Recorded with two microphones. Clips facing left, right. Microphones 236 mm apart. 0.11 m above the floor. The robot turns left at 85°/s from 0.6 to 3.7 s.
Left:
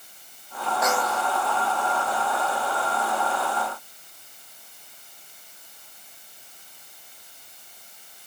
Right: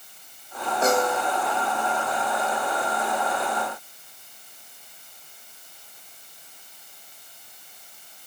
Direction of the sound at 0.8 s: 30° right.